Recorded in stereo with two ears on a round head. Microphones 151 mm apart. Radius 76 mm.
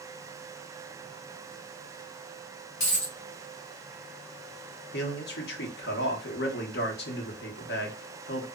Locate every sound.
2.8 s a dropped coin: 50° left (ahead or behind), 1.3 m
4.9 s a man speaking: 70° left (ahead or behind), 0.8 m